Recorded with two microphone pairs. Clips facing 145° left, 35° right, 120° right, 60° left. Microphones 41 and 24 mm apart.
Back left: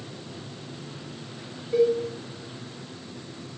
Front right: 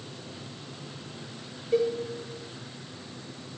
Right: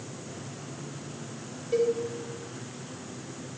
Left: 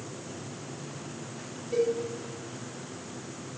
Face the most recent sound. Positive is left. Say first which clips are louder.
# back left 4 dB, right 2 dB
turn(degrees=-55)